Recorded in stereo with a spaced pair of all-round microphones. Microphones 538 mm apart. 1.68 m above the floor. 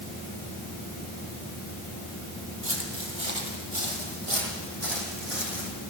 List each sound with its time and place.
2.6 s footsteps: 50° right (ahead or behind), 3.5 m; by 5.7 s 70° right (ahead or behind), 5.5 m